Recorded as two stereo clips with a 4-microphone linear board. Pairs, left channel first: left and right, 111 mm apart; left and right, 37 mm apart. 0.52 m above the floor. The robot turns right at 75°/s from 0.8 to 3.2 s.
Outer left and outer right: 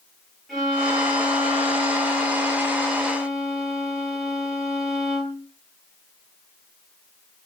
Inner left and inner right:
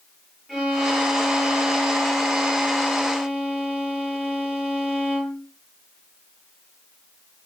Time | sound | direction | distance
0.5 | a violin | straight ahead | 8 m